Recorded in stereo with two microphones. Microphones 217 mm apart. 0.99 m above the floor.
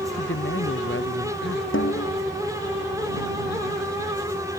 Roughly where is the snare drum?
Left.